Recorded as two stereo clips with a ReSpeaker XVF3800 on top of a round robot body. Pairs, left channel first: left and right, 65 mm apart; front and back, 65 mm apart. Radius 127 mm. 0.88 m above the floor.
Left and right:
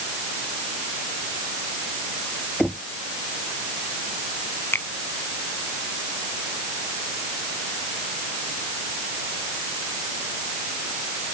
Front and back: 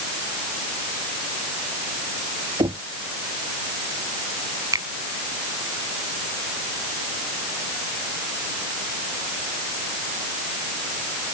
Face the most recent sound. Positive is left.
turn(degrees=145)